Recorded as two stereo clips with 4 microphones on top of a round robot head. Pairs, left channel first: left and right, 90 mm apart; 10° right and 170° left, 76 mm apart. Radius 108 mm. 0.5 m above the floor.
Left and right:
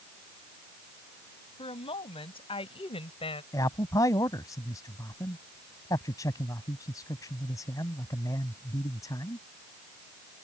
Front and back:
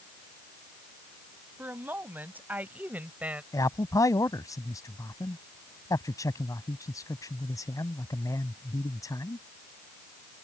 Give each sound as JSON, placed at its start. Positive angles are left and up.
{"t": 1.6, "sound": "a woman speaking", "azimuth_deg": 105}
{"t": 3.5, "sound": "a man speaking", "azimuth_deg": 35}